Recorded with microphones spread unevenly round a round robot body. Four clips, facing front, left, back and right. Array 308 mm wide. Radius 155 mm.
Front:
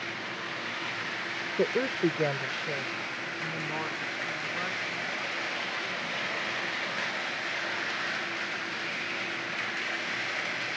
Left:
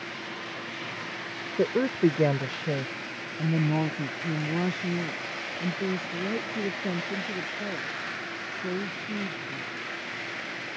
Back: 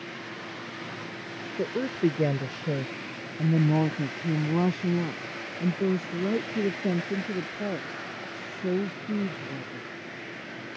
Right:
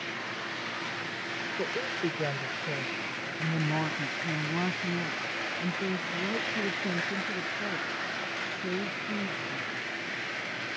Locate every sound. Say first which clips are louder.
1.6 s a woman speaking: left 10 dB, even; 65° left; by 9.9 s 175° left